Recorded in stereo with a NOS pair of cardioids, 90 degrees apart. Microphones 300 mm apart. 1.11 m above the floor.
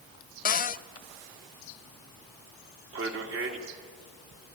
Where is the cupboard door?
30° left, 0.5 m.